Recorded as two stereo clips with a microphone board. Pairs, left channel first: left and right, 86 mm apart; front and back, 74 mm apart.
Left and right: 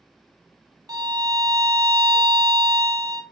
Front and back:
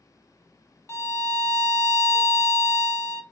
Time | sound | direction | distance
0.9 | a violin | 50° right | 0.5 m